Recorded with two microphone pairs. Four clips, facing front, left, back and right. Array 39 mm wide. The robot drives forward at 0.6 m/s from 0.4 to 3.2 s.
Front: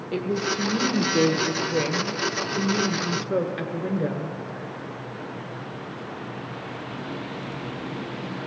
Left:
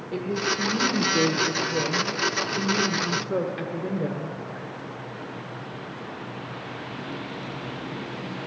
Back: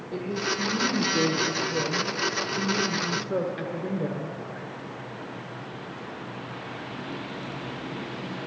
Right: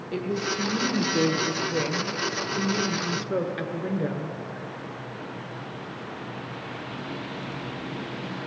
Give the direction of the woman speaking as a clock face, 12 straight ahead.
12 o'clock.